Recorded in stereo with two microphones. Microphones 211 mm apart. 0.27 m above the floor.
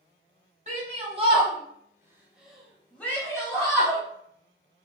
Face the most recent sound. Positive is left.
turn(degrees=20)  # may be behind; listen again after turning